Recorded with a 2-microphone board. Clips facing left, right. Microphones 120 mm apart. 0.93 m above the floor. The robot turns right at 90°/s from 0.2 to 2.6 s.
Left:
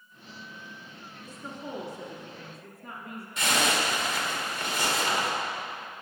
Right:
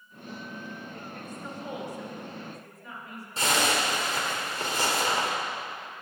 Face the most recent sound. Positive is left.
turn(degrees=-35)  # may be behind; listen again after turning